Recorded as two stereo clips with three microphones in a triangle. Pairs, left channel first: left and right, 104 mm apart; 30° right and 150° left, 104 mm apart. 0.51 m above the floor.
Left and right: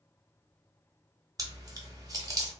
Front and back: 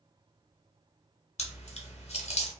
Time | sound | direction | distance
1.4 | chewing | 30° right | 0.8 m